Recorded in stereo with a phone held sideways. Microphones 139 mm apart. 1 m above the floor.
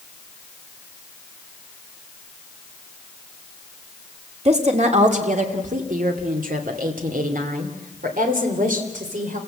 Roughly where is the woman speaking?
Right.